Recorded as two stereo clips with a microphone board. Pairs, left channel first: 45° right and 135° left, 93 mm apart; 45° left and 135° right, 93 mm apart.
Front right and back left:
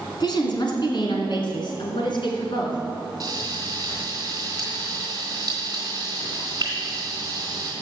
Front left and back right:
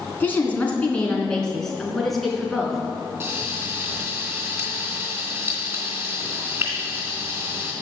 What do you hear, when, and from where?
0.2 s a woman speaking: 20° right, 2.5 m; by 2.8 s 50° right, 3.5 m
3.2 s frying: 170° left, 3 m